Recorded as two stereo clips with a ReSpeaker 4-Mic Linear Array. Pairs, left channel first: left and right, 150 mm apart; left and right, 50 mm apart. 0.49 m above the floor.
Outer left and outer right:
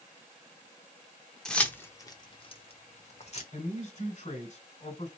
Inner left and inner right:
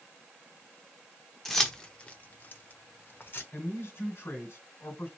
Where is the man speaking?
50° left (ahead or behind), 2 m.